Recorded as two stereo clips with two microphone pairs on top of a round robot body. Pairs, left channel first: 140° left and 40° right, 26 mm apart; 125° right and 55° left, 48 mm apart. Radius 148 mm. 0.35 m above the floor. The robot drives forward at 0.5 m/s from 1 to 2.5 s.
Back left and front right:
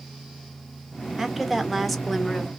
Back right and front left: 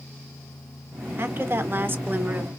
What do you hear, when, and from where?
1.2 s a woman speaking: 55° left, 1.5 m; by 2.5 s 90° left, 1.4 m